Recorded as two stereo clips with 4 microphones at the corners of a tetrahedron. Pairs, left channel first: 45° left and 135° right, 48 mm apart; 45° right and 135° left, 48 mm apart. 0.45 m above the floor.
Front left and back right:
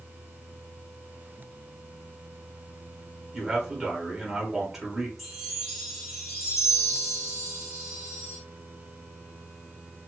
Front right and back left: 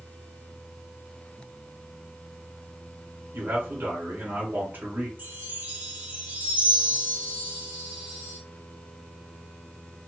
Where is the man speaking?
145° left, 1.3 m.